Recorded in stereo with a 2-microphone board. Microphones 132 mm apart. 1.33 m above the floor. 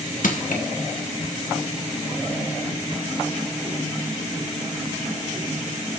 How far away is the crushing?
About 2 m.